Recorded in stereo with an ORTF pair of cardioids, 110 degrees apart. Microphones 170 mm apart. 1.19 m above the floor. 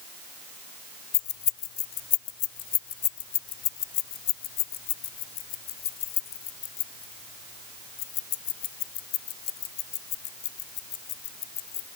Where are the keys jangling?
65° left; by 11.9 s 80° left.